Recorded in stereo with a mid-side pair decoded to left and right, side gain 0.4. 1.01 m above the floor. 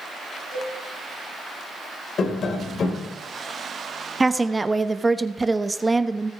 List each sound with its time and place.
0.5 s a cowbell: 65° left, 8 m
2.2 s tapping: 60° left, 2.5 m
4.2 s a woman speaking: 20° right, 1.0 m